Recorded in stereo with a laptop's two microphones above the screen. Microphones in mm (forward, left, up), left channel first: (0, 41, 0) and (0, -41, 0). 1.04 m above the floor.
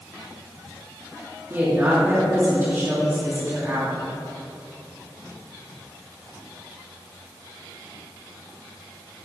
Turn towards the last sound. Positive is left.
turn(degrees=-30)  # may be behind; listen again after turning